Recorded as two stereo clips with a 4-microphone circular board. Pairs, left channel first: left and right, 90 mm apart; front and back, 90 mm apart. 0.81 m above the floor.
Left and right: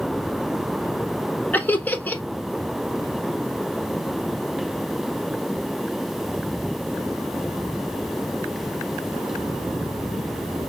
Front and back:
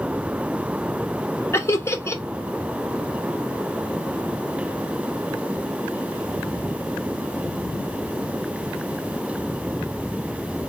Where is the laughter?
35° left, 0.7 m.